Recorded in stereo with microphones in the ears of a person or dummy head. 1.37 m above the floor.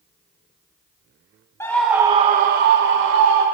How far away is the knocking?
I don't hear knocking.